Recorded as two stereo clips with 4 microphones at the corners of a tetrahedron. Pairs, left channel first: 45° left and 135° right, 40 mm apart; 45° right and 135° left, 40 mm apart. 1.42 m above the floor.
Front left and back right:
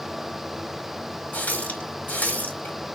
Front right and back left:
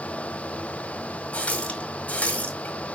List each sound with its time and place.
1.3 s a running tap: 5° left, 2 m